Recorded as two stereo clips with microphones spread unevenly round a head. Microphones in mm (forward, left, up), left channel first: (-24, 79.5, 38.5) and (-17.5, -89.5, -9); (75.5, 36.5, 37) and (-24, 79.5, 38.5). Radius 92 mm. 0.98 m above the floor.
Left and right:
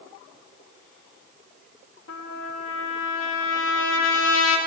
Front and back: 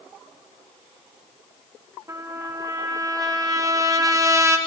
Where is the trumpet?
95° left, 0.9 m.